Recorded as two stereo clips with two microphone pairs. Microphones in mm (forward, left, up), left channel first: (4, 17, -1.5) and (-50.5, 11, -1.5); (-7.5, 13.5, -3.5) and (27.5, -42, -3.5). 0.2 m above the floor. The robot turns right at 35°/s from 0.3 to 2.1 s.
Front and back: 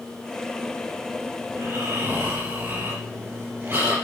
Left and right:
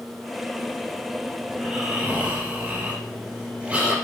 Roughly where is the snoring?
Behind right.